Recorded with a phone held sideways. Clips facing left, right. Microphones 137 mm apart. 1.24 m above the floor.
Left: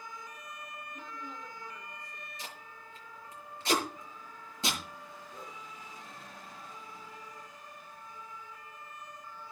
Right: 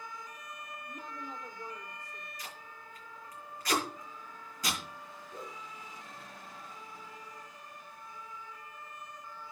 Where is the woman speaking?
45° right (ahead or behind), 3.5 m.